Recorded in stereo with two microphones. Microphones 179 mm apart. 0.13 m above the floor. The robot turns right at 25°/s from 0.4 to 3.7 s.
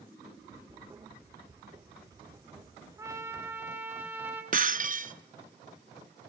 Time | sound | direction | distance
3.0 | a trumpet | 15° right (ahead or behind) | 1.5 m
4.5 | breaking glass | 50° right (ahead or behind) | 0.5 m